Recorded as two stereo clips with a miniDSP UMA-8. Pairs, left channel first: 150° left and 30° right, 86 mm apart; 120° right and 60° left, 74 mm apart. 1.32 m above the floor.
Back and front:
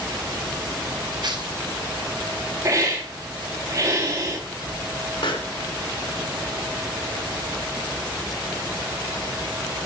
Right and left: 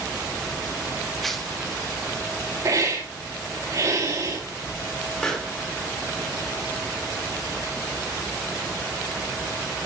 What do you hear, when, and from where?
1.2 s tearing paper: 35° right, 2.0 m
2.6 s a hiss: 25° left, 4 m
5.2 s a pop: 160° left, 3.5 m